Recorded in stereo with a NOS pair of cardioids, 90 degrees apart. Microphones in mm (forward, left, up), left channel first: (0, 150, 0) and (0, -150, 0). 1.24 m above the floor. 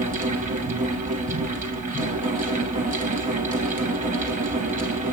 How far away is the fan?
About 1.3 m.